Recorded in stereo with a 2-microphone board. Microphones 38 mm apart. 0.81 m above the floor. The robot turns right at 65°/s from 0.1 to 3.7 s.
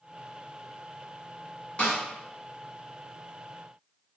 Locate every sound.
1.8 s a snare drum: 35° left (ahead or behind), 1.7 m; by 2.0 s 25° left (ahead or behind), 1.7 m